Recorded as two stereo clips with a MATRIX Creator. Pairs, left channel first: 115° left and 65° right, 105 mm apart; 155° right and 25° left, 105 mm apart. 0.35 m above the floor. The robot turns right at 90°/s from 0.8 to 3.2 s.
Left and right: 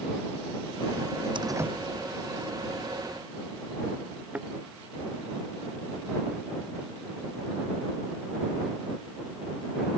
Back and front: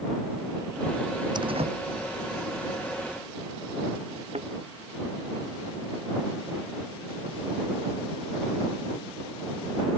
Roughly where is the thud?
Ahead.